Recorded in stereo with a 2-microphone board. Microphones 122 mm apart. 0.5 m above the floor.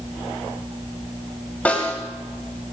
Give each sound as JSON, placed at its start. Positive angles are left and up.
{"t": 1.6, "sound": "a snare drum", "side_deg": 15, "distance_m": 3.5}